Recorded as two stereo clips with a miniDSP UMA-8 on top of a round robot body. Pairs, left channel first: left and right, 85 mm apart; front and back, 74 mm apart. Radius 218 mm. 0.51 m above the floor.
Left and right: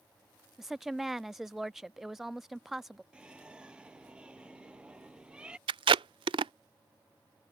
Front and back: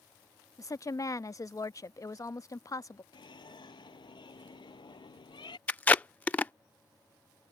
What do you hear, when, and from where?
0.6 s a woman speaking: 5° right
3.1 s a bird: 10° right
5.7 s tape being pulled: 70° right